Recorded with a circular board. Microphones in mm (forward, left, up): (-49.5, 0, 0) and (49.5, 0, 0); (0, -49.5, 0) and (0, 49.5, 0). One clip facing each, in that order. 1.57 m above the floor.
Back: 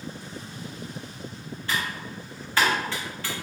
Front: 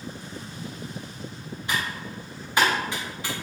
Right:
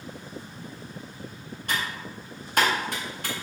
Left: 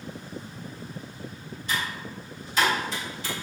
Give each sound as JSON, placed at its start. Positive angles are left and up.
{"t": 1.7, "sound": "typing on a keyboard", "azimuth_deg": -70, "distance_m": 1.2}